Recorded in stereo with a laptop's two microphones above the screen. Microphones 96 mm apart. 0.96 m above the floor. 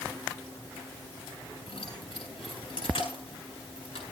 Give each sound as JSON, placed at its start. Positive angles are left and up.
{"t": 1.7, "sound": "keys jangling", "side_deg": 65, "distance_m": 8.0}